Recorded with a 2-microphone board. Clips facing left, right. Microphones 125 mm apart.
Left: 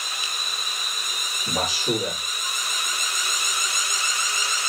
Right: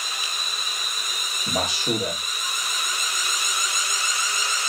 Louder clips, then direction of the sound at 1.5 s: Even; 65° right (ahead or behind).